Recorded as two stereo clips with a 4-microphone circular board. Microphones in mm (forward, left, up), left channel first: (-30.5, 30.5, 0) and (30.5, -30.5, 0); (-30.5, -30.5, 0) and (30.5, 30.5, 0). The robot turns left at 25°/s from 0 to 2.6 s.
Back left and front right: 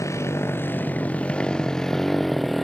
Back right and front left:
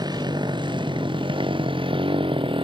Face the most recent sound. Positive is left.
turn(degrees=45)